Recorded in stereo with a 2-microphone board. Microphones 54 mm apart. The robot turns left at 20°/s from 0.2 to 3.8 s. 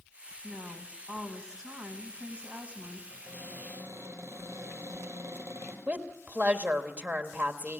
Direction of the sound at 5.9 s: 35° right (ahead or behind).